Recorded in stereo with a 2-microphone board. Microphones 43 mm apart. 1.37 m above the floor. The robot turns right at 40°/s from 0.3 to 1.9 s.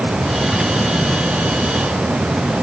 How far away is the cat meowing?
No cat meowing in this recording.